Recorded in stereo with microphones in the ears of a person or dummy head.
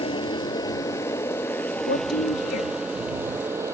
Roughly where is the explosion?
I don't hear an explosion.